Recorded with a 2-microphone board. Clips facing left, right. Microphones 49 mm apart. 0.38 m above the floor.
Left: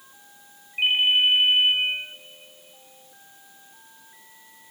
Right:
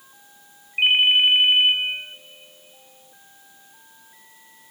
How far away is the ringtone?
About 1.0 m.